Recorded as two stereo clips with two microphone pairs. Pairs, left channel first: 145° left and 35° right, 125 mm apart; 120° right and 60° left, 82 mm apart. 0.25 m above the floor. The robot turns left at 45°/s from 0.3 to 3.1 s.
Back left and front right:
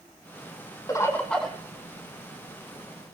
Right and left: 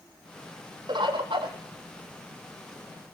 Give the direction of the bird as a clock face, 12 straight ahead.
9 o'clock.